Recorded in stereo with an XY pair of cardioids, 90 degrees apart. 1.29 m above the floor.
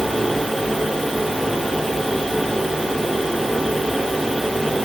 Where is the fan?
10° right, 4 m.